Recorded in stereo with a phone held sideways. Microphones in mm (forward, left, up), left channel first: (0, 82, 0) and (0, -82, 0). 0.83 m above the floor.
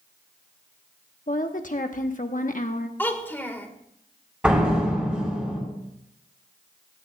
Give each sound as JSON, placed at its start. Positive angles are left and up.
{"t": 1.3, "sound": "a woman speaking", "side_deg": 55, "distance_m": 1.2}
{"t": 3.0, "sound": "a child speaking", "side_deg": 15, "distance_m": 1.9}
{"t": 4.4, "sound": "a door slam", "side_deg": -10, "distance_m": 5.0}